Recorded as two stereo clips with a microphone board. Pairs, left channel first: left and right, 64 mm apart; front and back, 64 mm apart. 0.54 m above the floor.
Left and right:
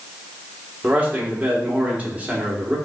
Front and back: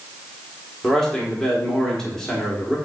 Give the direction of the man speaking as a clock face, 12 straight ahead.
2 o'clock.